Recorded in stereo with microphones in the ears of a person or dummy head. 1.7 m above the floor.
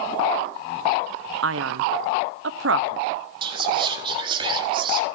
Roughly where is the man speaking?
Right.